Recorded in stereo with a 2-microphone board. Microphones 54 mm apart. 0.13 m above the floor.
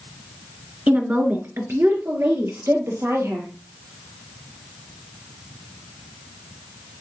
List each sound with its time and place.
0.9 s a woman speaking: 30° right (ahead or behind), 1.2 m; by 3.5 s 60° right (ahead or behind), 3 m